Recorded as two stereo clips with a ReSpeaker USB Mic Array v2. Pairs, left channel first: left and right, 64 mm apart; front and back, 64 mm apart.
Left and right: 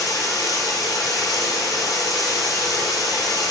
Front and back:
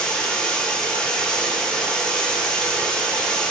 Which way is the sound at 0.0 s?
75° left.